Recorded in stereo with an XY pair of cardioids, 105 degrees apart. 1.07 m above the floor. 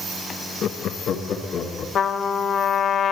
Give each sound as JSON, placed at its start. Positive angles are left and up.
{"t": 0.6, "sound": "laughter", "azimuth_deg": 65, "distance_m": 0.8}
{"t": 1.9, "sound": "a trumpet", "azimuth_deg": 65, "distance_m": 1.4}